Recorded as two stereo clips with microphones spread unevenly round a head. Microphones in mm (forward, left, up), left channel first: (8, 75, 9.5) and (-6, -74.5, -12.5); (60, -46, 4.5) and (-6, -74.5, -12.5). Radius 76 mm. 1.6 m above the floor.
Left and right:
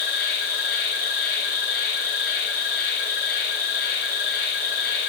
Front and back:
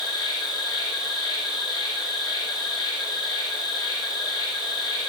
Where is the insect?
115° left, 9.5 m.